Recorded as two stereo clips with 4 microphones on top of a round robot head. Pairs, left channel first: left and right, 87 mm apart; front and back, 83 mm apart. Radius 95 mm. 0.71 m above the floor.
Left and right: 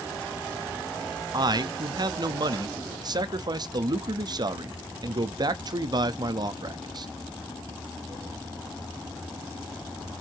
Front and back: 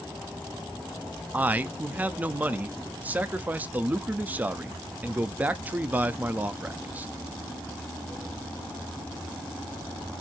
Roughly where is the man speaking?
Right.